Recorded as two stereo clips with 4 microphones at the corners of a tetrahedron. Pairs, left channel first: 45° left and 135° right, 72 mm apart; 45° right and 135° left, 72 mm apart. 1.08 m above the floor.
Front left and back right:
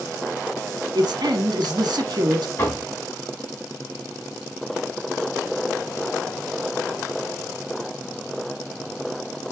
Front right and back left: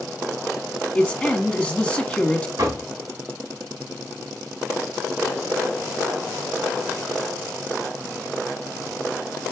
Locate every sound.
0.9 s a man speaking: 115° right, 1.4 m
2.6 s knocking: 95° left, 4 m